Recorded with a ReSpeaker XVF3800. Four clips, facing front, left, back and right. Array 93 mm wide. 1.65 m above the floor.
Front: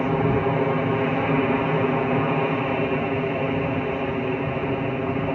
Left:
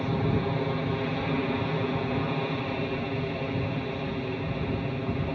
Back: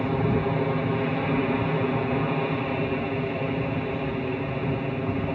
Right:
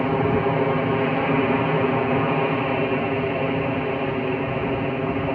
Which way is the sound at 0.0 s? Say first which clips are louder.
Right 7 dB, front 3 dB; 60° right.